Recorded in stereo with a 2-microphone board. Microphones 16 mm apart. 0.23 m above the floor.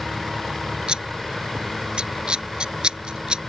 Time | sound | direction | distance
0.9 | scissors | 70° right (ahead or behind) | ?